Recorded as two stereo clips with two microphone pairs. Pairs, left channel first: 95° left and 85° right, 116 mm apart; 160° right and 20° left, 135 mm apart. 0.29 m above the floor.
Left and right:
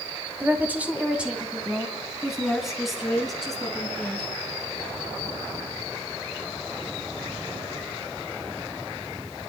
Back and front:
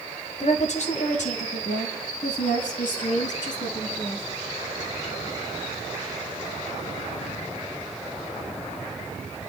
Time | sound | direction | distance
0.4 | a woman speaking | 155° right | 1.8 m